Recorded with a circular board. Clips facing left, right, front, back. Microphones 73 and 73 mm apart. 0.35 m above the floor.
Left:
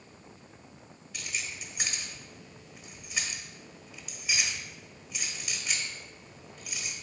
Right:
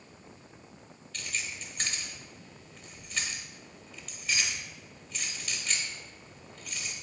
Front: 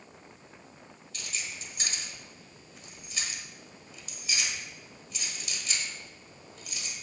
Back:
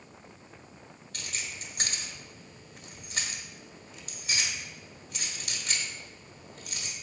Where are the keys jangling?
170° left, 1.1 m.